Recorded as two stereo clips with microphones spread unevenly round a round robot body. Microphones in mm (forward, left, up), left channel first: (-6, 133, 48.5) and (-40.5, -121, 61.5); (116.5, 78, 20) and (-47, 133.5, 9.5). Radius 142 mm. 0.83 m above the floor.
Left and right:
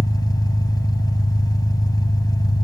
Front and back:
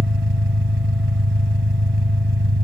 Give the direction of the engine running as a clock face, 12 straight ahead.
7 o'clock.